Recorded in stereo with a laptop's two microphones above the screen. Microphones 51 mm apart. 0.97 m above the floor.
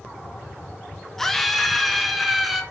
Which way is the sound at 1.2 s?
5° left (ahead or behind).